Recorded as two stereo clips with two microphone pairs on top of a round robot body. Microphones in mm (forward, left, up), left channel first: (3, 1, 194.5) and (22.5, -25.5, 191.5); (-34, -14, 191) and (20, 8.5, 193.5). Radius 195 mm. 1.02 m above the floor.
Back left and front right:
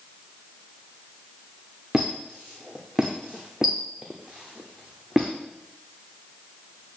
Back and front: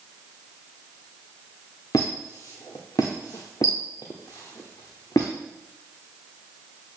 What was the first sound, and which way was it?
A squeak, 135° right.